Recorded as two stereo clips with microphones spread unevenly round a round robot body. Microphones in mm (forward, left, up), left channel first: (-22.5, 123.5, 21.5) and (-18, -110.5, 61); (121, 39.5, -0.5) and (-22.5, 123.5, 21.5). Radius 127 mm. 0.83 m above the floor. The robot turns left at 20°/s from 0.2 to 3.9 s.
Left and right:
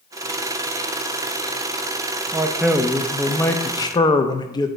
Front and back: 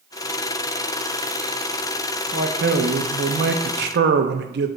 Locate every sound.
2.3 s a man speaking: 170° right, 0.7 m; by 4.7 s 160° left, 0.7 m